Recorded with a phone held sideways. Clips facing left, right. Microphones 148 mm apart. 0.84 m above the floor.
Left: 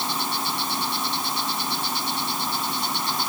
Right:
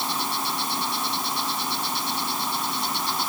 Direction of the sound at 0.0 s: Centre (ahead or behind).